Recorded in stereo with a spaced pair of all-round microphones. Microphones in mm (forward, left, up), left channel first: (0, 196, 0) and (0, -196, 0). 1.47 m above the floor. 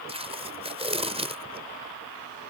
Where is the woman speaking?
I don't hear a woman speaking.